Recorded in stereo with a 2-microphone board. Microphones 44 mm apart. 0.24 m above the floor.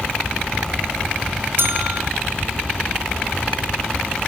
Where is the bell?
60° right (ahead or behind), 3.5 m.